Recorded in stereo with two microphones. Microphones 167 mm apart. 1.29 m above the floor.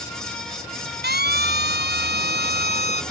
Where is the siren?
85° right; by 3.0 s 75° right (ahead or behind).